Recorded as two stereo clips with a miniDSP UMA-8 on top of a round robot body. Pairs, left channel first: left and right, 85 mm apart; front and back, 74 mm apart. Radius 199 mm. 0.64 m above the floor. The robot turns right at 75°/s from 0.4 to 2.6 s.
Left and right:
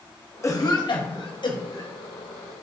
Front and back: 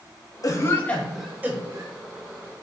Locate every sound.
0.4 s a cough: 35° left, 1.6 m; by 1.9 s 145° left, 1.6 m